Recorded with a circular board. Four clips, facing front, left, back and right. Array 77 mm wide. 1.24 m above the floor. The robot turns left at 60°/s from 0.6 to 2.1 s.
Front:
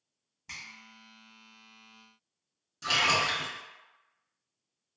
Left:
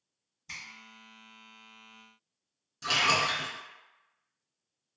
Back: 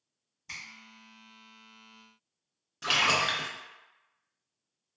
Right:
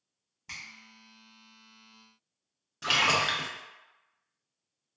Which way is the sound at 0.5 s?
65° right.